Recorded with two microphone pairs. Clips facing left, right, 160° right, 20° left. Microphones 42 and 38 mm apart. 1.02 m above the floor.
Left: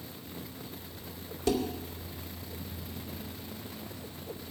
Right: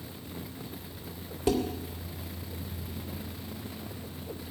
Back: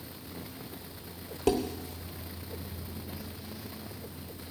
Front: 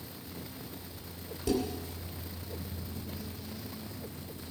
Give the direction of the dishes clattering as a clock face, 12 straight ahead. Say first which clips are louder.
Right 2 dB, back 3 dB; 5 o'clock.